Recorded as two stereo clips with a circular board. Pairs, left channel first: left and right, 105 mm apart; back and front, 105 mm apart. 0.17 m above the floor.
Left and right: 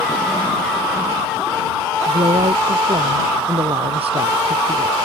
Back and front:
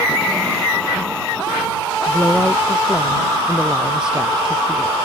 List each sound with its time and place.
2.1 s a woman speaking: 75° right; by 5.0 s 85° right